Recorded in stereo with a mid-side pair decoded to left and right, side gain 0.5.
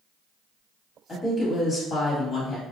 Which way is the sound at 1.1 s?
30° left.